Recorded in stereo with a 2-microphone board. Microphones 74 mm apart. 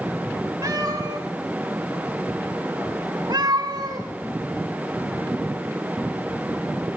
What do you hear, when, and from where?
0.6 s a cat meowing: 45° right (ahead or behind), 5.5 m; by 4.1 s 55° right (ahead or behind), 4 m